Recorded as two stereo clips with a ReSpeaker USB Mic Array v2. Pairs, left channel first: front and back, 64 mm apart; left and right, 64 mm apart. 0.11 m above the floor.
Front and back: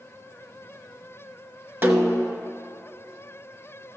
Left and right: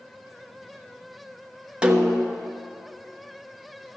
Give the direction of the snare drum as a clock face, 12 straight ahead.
5 o'clock.